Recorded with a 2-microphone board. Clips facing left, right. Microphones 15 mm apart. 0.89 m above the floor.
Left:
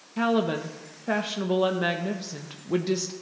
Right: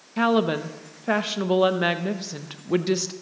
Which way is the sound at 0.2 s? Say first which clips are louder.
Right 3 dB; 20° right (ahead or behind).